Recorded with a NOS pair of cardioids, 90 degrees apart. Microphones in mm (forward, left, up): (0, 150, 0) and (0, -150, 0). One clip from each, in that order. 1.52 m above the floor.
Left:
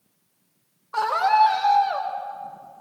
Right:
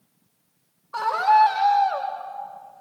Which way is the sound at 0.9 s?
5° left.